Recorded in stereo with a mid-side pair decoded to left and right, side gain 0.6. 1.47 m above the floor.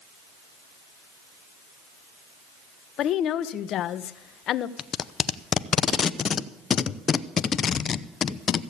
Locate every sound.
3.0 s a woman speaking: 55° left, 0.8 m
4.8 s tape being pulled: 40° left, 0.6 m